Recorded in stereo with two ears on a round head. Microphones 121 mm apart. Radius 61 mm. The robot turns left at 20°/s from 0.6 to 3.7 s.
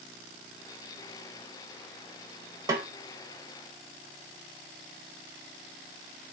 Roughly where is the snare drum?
Right.